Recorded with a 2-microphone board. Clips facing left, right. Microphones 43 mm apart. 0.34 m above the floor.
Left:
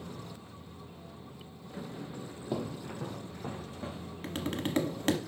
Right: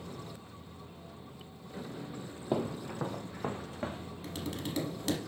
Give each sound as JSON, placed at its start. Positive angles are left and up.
{"t": 2.5, "sound": "footsteps", "side_deg": -25, "distance_m": 0.6}
{"t": 4.2, "sound": "tapping", "side_deg": 45, "distance_m": 0.9}